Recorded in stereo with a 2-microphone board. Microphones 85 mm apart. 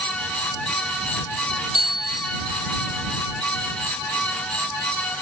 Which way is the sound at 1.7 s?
55° left (ahead or behind).